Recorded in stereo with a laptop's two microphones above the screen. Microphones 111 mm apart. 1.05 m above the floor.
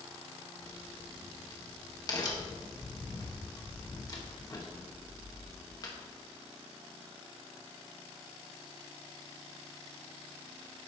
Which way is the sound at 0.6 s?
35° left (ahead or behind).